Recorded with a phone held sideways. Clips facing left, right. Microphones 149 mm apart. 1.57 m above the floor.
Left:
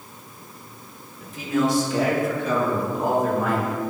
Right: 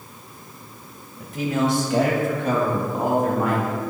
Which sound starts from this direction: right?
A man speaking, at 1.2 s.